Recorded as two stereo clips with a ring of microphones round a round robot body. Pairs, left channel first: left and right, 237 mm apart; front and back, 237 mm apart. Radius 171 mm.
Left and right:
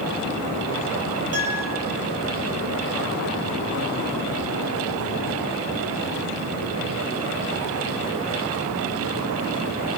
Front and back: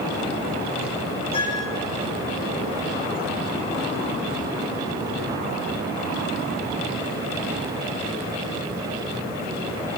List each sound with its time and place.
1.3 s a piano: 75° right, 6.5 m